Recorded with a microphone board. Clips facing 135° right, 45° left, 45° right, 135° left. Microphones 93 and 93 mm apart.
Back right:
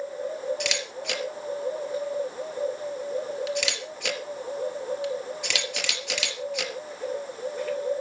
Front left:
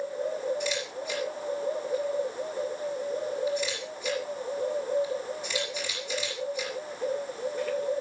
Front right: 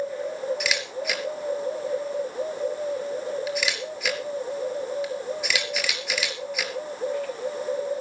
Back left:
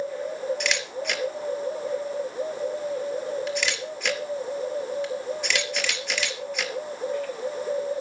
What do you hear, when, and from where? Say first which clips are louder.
0.6 s a camera shutter: even, even; 130° right, 3.5 m